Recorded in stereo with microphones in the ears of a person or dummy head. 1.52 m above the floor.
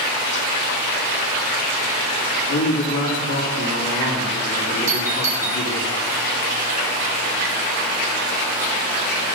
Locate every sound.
2.5 s a man speaking: 70° left (ahead or behind), 2.5 m
4.9 s a doorbell: 15° right (ahead or behind), 1.4 m